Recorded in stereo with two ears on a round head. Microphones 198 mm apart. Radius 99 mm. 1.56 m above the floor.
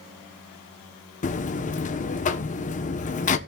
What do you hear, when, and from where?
1.2 s a buzzer: 35° left (ahead or behind), 1.1 m